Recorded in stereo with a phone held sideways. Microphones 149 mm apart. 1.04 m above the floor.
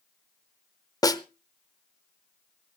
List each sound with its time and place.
1.0 s a snare drum: 25° left (ahead or behind), 0.8 m